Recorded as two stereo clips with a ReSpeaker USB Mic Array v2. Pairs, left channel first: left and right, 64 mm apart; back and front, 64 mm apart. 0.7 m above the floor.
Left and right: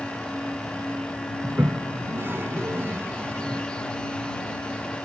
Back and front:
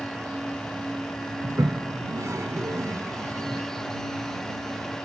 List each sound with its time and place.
1.4 s a toilet flushing: 35° right